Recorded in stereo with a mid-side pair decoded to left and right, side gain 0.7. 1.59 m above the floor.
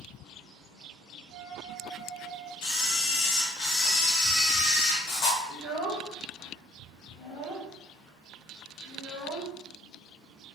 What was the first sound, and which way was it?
A flute, 55° right.